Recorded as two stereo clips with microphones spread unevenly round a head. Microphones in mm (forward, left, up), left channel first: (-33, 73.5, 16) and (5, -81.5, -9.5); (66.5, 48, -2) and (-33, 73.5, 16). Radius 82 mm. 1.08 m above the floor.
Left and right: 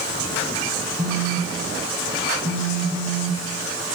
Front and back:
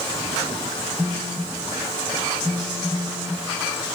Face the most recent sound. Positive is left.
turn(degrees=-115)